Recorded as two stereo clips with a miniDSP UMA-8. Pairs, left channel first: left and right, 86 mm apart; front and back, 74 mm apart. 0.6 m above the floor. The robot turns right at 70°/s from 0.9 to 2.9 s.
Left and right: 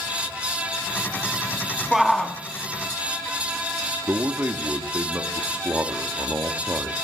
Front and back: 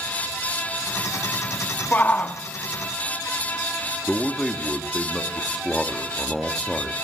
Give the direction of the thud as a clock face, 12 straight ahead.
No thud in this recording.